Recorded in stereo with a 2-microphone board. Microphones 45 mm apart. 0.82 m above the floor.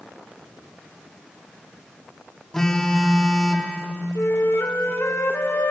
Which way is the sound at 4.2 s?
70° left (ahead or behind).